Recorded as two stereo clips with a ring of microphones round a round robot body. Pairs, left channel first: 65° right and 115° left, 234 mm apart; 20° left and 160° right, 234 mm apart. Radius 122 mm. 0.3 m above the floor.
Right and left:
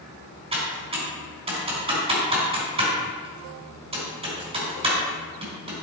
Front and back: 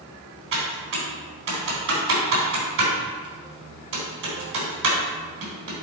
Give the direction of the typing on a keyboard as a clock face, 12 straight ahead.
6 o'clock.